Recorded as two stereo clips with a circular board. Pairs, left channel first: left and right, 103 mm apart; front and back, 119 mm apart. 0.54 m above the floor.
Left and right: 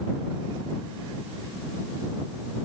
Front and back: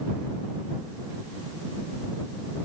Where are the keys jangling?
I don't hear keys jangling.